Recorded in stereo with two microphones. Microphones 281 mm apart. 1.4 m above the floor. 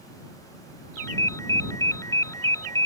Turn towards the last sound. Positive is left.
turn(degrees=10)  # may be behind; listen again after turning